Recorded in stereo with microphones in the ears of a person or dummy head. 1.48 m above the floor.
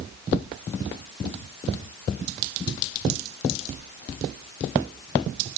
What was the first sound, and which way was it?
Only background noise.